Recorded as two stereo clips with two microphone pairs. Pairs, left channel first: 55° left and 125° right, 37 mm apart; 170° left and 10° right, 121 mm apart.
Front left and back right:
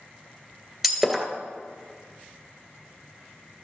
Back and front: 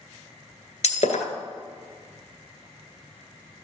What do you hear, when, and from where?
0.8 s breaking glass: 155° left, 1.7 m